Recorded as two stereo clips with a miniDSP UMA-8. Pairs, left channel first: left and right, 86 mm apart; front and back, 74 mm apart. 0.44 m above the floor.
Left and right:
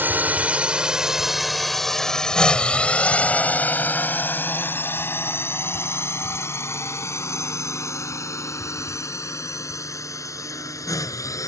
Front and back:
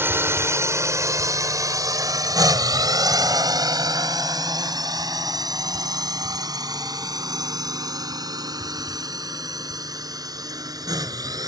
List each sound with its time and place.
0.0 s a drone: 145° right; by 11.5 s 145° left